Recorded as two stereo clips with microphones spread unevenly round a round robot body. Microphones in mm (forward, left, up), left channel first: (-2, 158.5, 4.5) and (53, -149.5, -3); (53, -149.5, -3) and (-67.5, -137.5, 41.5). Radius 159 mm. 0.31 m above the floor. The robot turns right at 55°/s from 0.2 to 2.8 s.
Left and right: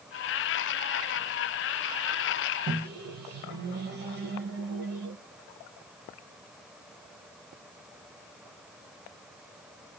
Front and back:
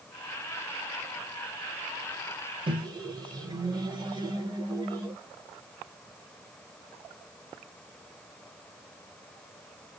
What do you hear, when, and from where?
2.7 s a microwave: 130° right, 0.9 m; by 5.2 s 120° right, 0.9 m